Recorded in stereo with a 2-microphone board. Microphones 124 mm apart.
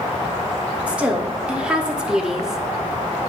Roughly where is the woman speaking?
Centre.